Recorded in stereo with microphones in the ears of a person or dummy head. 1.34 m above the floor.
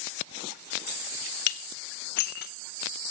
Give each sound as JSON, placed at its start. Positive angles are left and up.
{"t": 1.5, "sound": "dishes clattering", "side_deg": 60, "distance_m": 0.7}